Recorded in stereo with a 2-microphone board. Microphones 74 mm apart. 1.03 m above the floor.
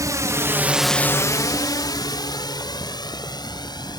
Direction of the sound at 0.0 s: 55° right (ahead or behind).